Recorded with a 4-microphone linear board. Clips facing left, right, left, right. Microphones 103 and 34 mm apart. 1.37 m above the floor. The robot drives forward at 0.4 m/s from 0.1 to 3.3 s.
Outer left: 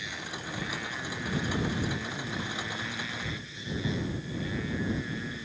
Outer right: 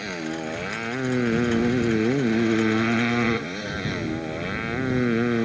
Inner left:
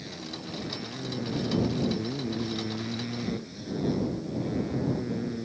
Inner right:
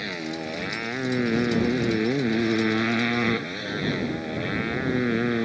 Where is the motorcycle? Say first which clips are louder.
Outer right 11 dB, inner right 8 dB; 60° right (ahead or behind); by 5.5 s 70° right (ahead or behind).